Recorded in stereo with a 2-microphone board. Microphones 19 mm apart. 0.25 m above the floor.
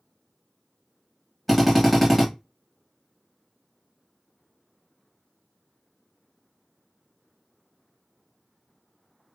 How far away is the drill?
About 1.4 m.